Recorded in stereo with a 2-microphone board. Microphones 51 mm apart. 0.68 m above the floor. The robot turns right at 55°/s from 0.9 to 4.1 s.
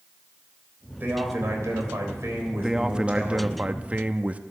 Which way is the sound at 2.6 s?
10° right (ahead or behind).